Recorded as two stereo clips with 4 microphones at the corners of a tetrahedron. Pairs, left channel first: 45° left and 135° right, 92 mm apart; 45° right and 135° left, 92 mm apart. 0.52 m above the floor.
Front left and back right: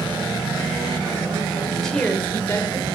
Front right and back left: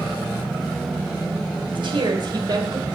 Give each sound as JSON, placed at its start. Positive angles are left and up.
{"t": 1.6, "sound": "a woman speaking", "azimuth_deg": 135, "distance_m": 2.5}